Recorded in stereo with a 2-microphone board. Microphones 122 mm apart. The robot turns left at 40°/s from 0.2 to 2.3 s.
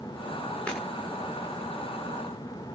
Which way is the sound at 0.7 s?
10° left (ahead or behind).